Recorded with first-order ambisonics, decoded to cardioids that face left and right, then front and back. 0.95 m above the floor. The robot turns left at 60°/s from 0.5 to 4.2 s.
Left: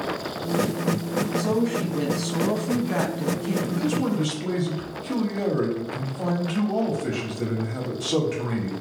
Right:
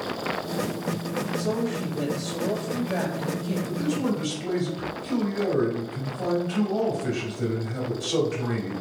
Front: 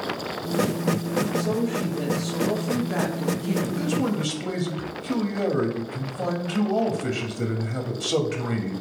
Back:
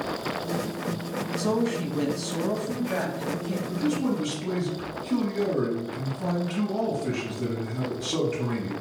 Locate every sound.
1.4 s a woman speaking: 170° left, 1.2 m; by 3.5 s 40° left, 1.2 m
3.6 s a man speaking: 55° left, 1.4 m; by 8.7 s 20° left, 1.4 m